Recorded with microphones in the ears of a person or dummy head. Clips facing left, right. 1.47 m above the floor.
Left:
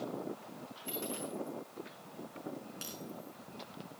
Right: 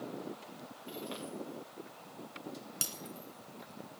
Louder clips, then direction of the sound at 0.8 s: Left 2 dB; 60° left (ahead or behind).